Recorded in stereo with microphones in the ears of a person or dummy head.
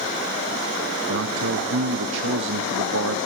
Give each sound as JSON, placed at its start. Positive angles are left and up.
{"t": 1.1, "sound": "a man speaking", "side_deg": -65, "distance_m": 0.8}